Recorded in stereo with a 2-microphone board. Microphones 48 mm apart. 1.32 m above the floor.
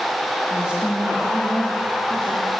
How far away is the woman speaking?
About 1.9 m.